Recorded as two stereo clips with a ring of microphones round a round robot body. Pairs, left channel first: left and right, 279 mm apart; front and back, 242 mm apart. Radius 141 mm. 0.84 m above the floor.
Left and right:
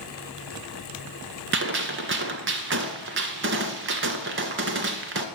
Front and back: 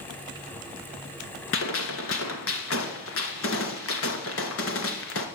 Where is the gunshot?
40° right, 1.7 m.